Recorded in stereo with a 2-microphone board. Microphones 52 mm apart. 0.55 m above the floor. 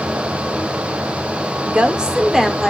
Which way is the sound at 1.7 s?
25° right (ahead or behind).